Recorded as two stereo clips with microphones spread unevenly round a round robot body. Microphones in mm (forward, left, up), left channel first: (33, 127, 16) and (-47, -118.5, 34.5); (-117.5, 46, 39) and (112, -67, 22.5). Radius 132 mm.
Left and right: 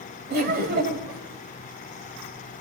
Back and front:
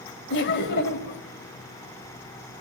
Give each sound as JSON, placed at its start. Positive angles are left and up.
{"t": 0.3, "sound": "laughter", "azimuth_deg": -160, "distance_m": 2.0}